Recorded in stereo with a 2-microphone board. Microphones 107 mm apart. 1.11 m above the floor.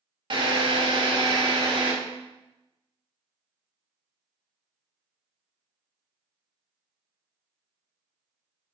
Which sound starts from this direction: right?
A drill, at 0.3 s.